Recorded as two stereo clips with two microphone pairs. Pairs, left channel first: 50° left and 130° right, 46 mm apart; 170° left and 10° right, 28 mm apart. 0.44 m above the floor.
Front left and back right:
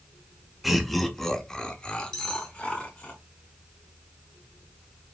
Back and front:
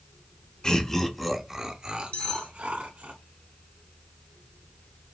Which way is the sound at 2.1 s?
125° left.